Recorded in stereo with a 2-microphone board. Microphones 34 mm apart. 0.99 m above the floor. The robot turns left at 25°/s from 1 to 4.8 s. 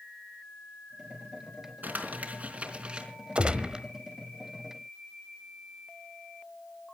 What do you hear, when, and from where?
1.8 s crumpling: 55° right (ahead or behind), 4 m; by 3.1 s 25° right (ahead or behind), 4 m
3.4 s a gunshot: 35° right (ahead or behind), 1.3 m; by 3.9 s 25° right (ahead or behind), 1.3 m